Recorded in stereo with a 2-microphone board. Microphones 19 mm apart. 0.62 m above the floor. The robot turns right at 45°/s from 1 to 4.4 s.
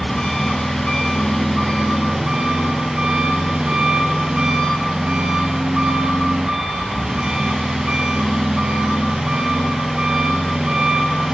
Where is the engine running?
160° left, 10 m; by 11.3 s 45° right, 10 m.